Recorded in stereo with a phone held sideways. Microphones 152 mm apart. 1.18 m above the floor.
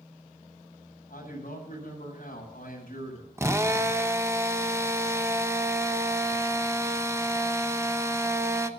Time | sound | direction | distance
1.1 | a man speaking | 65° left (ahead or behind) | 8 m
3.4 | a drill | 20° right (ahead or behind) | 0.9 m